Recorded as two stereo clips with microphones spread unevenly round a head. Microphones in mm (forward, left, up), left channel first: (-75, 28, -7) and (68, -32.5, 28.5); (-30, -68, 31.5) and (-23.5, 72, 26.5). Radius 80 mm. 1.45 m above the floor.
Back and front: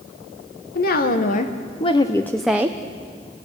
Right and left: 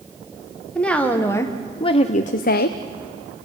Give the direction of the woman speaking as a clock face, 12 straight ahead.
6 o'clock.